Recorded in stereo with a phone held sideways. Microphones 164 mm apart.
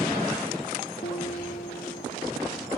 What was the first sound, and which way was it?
A guitar, 55° left (ahead or behind).